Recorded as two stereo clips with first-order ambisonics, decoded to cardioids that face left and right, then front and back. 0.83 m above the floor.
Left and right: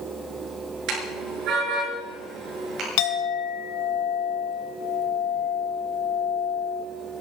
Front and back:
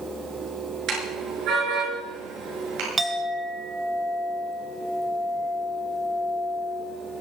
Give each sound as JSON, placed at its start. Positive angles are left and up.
{"t": 0.9, "sound": "a car horn", "azimuth_deg": -130, "distance_m": 7.0}
{"t": 3.0, "sound": "a clink", "azimuth_deg": 100, "distance_m": 1.7}